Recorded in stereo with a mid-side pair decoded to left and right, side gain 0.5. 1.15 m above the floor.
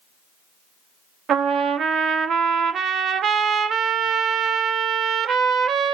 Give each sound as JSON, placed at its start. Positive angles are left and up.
{"t": 1.3, "sound": "a trumpet", "azimuth_deg": -55, "distance_m": 0.6}